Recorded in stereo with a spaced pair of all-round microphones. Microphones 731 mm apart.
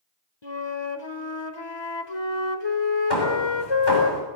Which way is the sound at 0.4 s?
35° left (ahead or behind).